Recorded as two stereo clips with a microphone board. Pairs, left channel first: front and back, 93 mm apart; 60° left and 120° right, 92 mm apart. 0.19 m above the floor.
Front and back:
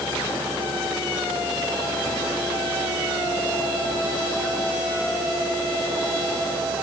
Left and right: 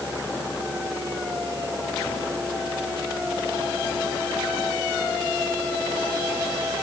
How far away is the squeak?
No squeak in this recording.